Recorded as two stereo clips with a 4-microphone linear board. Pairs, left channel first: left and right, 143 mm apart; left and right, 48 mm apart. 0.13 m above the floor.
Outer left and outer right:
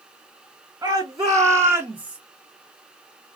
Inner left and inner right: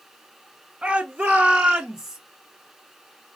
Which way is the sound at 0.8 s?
25° right (ahead or behind).